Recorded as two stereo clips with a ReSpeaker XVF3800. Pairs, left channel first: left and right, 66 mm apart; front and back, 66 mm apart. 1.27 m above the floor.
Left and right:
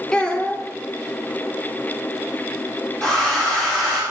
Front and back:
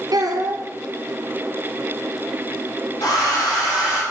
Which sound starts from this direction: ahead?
A hair dryer, at 3.0 s.